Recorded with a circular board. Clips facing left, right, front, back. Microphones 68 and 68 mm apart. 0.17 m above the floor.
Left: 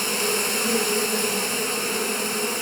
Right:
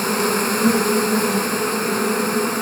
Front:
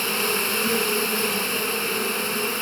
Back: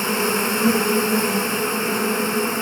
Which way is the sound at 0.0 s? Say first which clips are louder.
Right 6 dB, back 4 dB; 120° right.